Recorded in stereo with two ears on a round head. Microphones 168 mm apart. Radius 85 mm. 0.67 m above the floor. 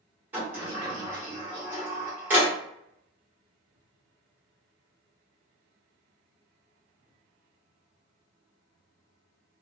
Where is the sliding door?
10° right (ahead or behind), 1.2 m.